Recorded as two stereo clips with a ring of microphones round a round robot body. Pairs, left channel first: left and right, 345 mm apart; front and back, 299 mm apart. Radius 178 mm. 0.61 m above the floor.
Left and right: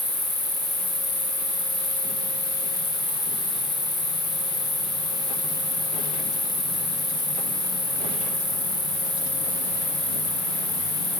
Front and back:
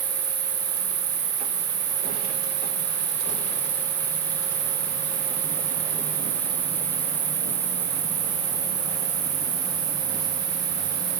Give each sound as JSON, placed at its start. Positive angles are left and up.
{"t": 0.0, "sound": "an insect", "azimuth_deg": 180, "distance_m": 5.0}